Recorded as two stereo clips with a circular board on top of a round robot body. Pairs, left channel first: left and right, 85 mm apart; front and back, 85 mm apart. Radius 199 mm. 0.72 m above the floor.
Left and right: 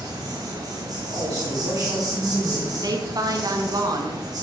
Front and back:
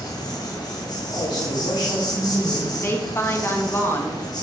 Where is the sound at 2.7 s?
60° right, 1.5 m.